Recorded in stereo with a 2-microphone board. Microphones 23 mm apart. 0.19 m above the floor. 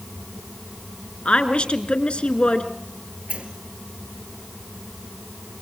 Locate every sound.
1.2 s a woman speaking: 55° left (ahead or behind), 2.5 m
3.3 s a sliding door: 60° right (ahead or behind), 3 m